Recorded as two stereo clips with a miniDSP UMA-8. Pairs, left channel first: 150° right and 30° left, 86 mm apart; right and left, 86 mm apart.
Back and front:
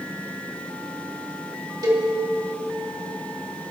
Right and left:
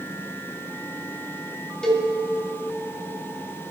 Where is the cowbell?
10° right, 2.5 m.